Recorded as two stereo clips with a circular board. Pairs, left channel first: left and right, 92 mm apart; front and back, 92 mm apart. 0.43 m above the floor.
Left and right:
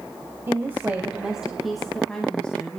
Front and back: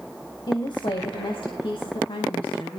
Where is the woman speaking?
30° right, 2 m; by 2.8 s 20° left, 3 m.